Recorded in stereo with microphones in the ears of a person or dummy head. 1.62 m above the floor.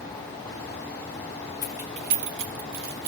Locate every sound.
1.6 s keys jangling: 20° left (ahead or behind), 0.6 m; by 3.1 s 75° right (ahead or behind), 1.8 m